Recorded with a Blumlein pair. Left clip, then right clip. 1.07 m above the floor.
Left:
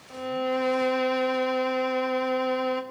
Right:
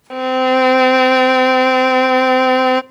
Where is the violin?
55° right, 0.5 m.